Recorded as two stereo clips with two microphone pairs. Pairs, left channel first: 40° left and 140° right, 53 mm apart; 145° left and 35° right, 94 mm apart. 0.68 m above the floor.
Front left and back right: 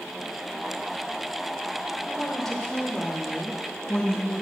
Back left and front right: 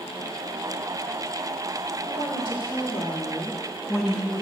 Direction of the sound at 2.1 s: 120° left.